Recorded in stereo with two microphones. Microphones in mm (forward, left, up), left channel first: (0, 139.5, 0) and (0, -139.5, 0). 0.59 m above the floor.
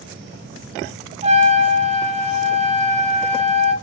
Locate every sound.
1.2 s a trumpet: 20° right (ahead or behind), 1.0 m